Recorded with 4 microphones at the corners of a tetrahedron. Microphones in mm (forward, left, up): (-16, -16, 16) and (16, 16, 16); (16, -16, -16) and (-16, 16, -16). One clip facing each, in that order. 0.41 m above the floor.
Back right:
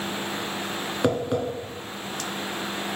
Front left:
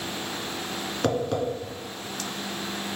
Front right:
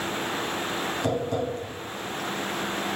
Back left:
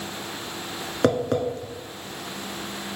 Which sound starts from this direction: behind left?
Tapping, at 1.0 s.